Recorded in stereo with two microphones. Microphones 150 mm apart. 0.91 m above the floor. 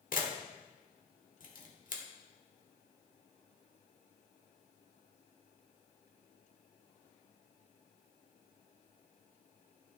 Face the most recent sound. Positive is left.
turn(degrees=60)  # may be behind; listen again after turning